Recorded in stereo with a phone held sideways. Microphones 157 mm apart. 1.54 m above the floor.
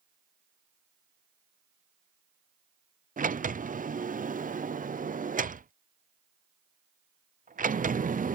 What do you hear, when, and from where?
3.2 s a sliding door: 60° right (ahead or behind)